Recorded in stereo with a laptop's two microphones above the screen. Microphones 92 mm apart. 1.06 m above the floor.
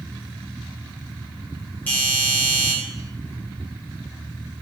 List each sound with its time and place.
1.9 s a doorbell: 20° left (ahead or behind), 1.2 m